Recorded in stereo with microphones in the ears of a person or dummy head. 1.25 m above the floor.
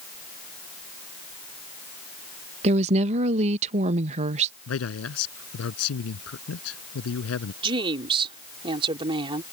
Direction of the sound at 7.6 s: 30° right (ahead or behind).